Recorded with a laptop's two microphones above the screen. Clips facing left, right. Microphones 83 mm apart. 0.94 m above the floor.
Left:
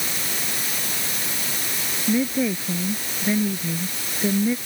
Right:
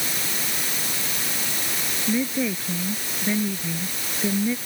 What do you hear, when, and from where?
2.1 s a woman speaking: 10° left (ahead or behind)